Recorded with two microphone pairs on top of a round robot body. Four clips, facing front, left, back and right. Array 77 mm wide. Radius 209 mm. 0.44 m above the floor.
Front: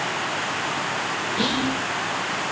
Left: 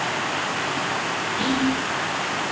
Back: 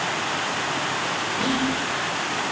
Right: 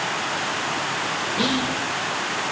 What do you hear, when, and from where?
1.4 s whispering: 45° right, 3 m